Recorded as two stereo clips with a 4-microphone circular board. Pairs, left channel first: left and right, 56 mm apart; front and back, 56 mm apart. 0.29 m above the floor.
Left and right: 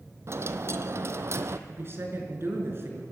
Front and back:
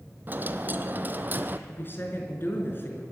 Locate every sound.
0.3 s a dropped coin: 125° right, 1.0 m
1.7 s a woman speaking: 50° right, 4 m